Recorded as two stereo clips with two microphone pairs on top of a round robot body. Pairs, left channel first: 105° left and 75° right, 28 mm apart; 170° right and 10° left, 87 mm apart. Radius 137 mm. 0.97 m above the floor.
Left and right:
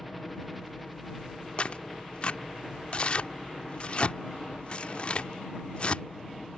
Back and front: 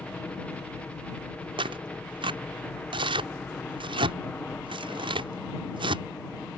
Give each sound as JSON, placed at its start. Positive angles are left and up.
{"t": 0.0, "sound": "a helicopter", "azimuth_deg": 150}
{"t": 1.6, "sound": "tearing paper", "azimuth_deg": 45}